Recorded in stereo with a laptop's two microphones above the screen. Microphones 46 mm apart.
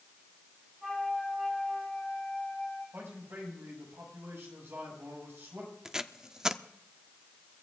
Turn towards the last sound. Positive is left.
turn(degrees=-15)  # may be behind; listen again after turning